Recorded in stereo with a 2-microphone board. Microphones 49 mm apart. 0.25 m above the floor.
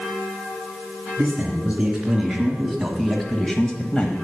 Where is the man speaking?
15° right (ahead or behind), 4 m; by 4.1 s 25° left (ahead or behind), 1.3 m.